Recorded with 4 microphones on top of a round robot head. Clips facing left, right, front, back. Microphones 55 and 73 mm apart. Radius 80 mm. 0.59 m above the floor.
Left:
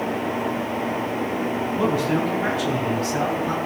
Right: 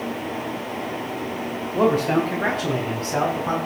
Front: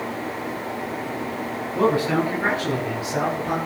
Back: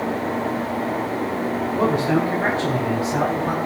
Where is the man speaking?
110° right, 3 m; by 3.6 s 130° right, 4.5 m.